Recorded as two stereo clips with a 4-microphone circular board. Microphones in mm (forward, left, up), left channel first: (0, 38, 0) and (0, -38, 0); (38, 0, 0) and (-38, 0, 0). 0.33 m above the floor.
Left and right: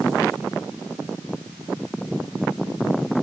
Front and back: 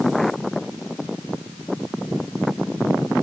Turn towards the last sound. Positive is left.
No sound to turn to.